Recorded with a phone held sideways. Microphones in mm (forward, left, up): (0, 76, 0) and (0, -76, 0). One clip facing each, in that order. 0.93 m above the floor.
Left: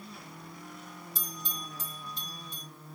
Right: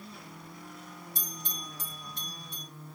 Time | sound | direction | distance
1.1 | a bell | 70° right (ahead or behind) | 2 m